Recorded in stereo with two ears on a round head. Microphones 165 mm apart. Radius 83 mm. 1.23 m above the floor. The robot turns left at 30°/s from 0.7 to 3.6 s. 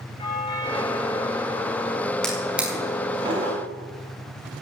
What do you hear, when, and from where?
0.2 s a doorbell: 150° left, 6.5 m; by 2.1 s 105° left, 6.5 m
2.2 s a drawer: 5° left (ahead or behind), 5.5 m; by 3.6 s 35° right (ahead or behind), 5.5 m